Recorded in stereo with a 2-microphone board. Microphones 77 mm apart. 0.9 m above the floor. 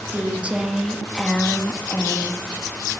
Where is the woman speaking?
25° right (ahead or behind), 1.8 m; by 2.5 s 40° left (ahead or behind), 1.6 m.